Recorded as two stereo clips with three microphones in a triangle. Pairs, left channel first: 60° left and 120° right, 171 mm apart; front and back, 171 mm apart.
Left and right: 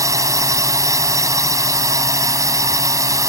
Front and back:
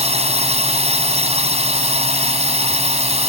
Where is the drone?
Straight behind.